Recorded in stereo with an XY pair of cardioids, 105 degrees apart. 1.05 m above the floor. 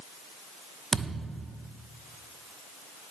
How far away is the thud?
About 0.9 m.